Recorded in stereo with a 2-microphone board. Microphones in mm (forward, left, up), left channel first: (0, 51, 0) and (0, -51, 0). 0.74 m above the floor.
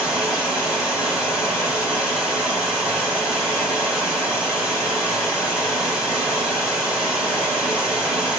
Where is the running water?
5° right (ahead or behind), 2.5 m.